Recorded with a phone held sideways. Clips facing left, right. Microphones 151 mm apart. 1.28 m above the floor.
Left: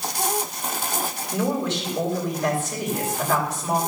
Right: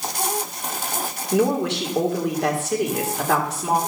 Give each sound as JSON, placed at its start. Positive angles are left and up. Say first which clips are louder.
{"t": 1.3, "sound": "a woman speaking", "louder": "right 5 dB", "side_deg": -75, "distance_m": 3.5}